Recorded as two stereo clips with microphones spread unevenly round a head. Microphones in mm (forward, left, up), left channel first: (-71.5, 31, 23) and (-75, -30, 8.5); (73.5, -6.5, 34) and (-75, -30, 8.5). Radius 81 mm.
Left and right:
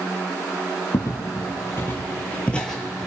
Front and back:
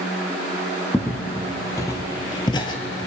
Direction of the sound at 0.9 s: 80° left.